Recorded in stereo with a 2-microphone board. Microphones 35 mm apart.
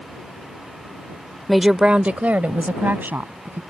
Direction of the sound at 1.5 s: 5° left (ahead or behind).